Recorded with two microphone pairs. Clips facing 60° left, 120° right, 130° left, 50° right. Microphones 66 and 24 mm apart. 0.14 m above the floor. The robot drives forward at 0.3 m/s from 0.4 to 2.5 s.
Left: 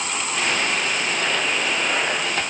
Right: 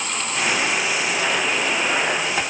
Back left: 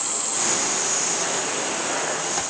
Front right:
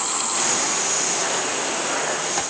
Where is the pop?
No pop in this recording.